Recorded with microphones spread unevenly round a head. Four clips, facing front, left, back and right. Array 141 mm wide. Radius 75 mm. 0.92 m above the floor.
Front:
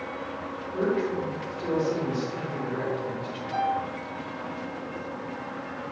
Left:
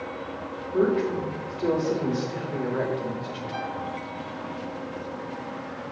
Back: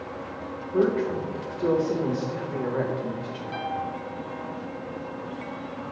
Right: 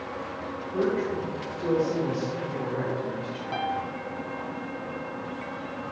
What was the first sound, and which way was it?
A woman speaking, 160° left.